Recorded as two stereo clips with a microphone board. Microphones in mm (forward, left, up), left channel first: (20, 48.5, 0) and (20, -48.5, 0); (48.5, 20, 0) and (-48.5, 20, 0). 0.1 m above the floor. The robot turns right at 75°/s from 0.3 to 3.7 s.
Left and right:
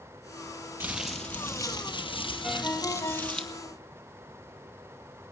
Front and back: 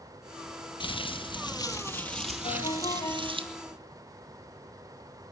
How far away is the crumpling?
About 2.5 m.